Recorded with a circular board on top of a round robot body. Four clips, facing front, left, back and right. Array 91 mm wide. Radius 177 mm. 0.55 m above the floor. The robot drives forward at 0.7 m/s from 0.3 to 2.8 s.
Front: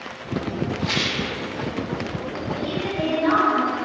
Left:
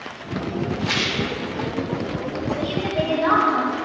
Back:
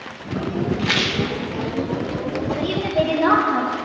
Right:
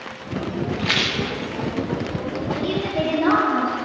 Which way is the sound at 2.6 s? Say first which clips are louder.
Right 1 dB, back 4 dB; 140° right.